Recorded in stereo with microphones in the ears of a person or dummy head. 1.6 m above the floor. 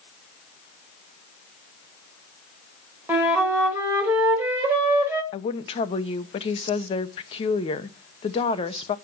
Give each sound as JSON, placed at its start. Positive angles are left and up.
{"t": 3.1, "sound": "a flute", "side_deg": -15, "distance_m": 1.7}
{"t": 5.3, "sound": "a woman speaking", "side_deg": 35, "distance_m": 0.9}